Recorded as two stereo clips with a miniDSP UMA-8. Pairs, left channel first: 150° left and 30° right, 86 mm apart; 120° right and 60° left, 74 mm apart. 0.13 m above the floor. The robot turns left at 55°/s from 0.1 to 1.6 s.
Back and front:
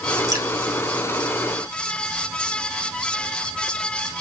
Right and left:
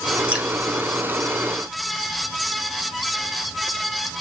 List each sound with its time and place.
0.3 s dripping: 5° right, 1.0 m; by 0.5 s 15° right, 1.0 m